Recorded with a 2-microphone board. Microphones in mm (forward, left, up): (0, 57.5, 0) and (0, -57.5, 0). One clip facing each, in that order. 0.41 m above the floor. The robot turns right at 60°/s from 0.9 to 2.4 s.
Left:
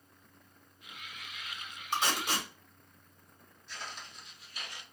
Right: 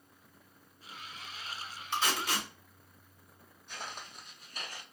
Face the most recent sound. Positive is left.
turn(degrees=-40)  # may be behind; listen again after turning